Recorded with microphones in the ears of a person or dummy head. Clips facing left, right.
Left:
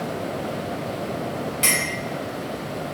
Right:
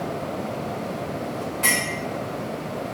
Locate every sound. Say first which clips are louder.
1.6 s a clink: even; 25° left (ahead or behind), 0.6 m